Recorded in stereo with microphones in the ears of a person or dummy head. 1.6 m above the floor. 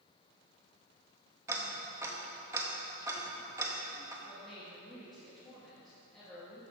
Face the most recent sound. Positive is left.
turn(degrees=0)  # may be behind; listen again after turning